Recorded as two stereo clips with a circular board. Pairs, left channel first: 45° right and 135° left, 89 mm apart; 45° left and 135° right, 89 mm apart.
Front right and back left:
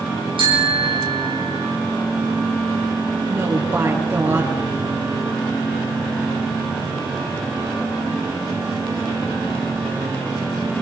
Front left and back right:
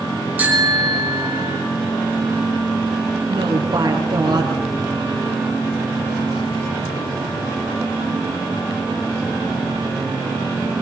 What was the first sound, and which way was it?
A bicycle bell, 155° left.